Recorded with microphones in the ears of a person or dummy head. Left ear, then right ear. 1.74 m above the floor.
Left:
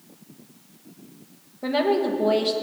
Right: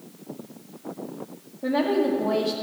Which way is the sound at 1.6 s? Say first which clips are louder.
Left 1 dB; 60° left (ahead or behind).